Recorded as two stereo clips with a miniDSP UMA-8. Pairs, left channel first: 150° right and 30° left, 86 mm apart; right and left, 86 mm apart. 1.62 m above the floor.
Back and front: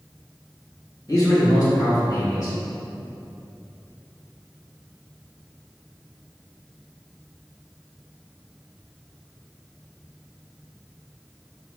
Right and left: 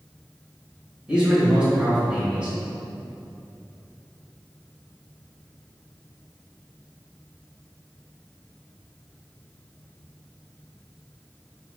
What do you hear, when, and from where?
1.1 s a man speaking: 170° left, 1.5 m